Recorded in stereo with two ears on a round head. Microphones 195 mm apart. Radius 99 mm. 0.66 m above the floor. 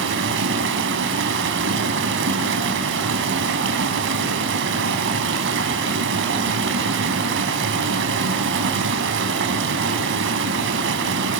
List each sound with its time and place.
0.0 s running water: 65° right (ahead or behind), 3.5 m